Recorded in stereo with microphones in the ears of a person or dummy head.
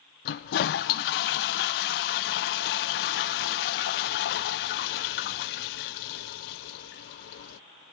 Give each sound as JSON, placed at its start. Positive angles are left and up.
{"t": 0.2, "sound": "a toilet flushing", "side_deg": 60, "distance_m": 0.6}